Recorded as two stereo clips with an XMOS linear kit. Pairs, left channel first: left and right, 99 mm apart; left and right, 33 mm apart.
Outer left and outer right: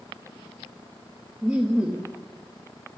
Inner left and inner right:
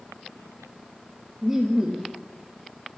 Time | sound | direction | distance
1.4 | laughter | 10° right (ahead or behind) | 1.5 m